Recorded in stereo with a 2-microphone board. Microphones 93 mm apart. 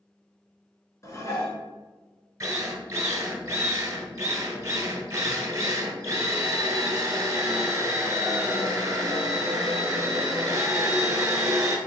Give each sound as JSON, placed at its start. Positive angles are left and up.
{"t": 1.0, "sound": "dishes clattering", "side_deg": 35, "distance_m": 1.1}
{"t": 2.4, "sound": "a drill", "side_deg": -35, "distance_m": 0.8}